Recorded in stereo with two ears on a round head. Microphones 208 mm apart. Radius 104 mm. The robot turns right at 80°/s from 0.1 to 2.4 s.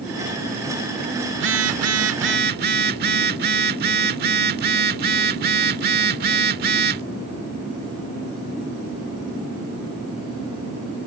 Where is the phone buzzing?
130° right; by 7.0 s 45° right.